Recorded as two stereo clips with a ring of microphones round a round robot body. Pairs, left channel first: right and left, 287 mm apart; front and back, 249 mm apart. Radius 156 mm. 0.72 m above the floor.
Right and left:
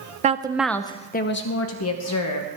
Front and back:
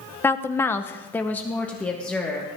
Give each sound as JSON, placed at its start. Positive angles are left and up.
{"t": 0.2, "sound": "a woman speaking", "azimuth_deg": 70, "distance_m": 0.7}